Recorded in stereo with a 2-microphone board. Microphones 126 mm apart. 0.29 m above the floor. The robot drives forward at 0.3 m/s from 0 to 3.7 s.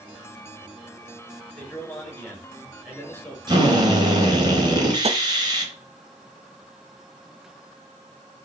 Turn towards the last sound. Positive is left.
turn(degrees=-55)  # may be behind; listen again after turning